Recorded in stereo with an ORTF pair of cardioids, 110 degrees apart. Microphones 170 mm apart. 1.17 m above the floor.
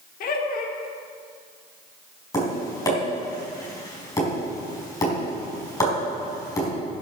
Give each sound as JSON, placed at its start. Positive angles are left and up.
{"t": 0.2, "sound": "laughter", "azimuth_deg": 60, "distance_m": 1.8}
{"t": 2.3, "sound": "tapping", "azimuth_deg": 20, "distance_m": 4.5}